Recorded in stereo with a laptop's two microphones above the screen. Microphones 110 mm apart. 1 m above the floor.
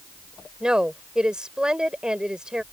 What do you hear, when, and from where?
0.6 s a woman speaking: 5° right (ahead or behind)